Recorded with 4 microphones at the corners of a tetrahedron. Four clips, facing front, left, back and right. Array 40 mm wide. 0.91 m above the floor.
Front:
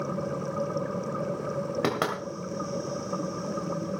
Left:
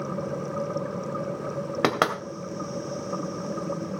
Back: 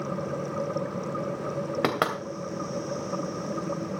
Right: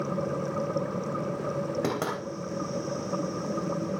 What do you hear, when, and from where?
1.8 s knocking: 110° left, 2.5 m